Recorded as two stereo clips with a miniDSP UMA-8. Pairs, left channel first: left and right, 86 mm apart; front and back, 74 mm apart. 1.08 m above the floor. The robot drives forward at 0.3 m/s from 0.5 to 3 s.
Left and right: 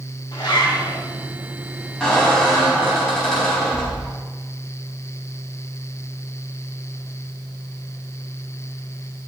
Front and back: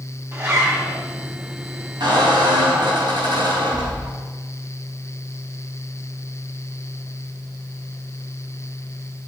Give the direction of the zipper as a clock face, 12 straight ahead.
8 o'clock.